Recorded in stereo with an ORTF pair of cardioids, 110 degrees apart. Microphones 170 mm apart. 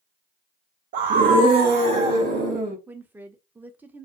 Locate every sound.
0.9 s a scream: 50° right, 0.5 m; by 2.8 s 65° right, 1.5 m
2.9 s a woman speaking: 10° right, 0.6 m